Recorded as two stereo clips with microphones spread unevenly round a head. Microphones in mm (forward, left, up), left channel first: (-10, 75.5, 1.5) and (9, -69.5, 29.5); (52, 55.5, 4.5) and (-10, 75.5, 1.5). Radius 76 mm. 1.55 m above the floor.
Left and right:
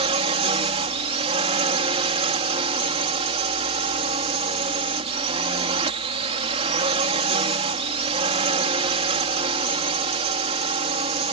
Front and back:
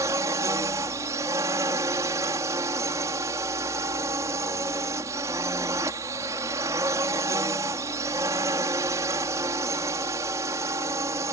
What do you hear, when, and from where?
0.0 s a drone: 135° right